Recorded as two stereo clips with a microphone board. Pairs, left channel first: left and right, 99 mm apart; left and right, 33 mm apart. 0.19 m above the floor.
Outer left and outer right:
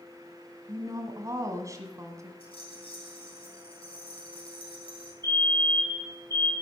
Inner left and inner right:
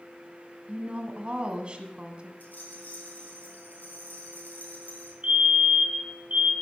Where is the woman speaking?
35° right (ahead or behind), 1.5 m.